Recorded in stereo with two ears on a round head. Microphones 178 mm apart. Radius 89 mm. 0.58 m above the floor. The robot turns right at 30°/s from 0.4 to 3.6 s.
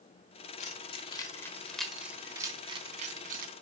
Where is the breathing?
No breathing in this recording.